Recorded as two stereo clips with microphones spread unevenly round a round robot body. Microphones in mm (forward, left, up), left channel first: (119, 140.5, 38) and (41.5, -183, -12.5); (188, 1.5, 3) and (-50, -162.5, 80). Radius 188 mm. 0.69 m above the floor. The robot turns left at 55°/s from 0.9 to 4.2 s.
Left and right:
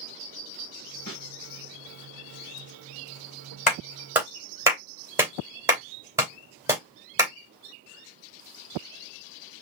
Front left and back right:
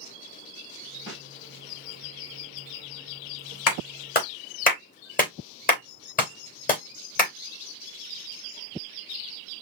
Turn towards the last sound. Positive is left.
turn(degrees=-25)